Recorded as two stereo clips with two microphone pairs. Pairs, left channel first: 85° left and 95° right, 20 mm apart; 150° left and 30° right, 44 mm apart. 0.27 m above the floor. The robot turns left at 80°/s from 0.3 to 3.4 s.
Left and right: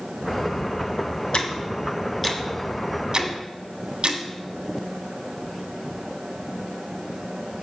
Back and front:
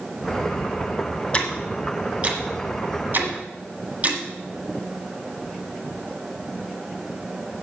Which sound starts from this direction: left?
Ticking, at 1.3 s.